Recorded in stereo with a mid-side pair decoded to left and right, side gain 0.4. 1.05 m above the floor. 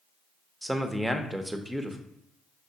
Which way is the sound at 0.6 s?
10° right.